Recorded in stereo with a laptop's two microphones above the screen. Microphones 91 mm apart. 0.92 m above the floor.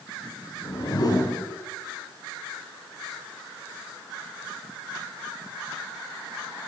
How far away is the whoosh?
About 5.5 m.